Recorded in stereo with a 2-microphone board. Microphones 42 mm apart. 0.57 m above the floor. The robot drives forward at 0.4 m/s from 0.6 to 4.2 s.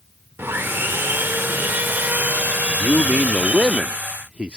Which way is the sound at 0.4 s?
65° right (ahead or behind).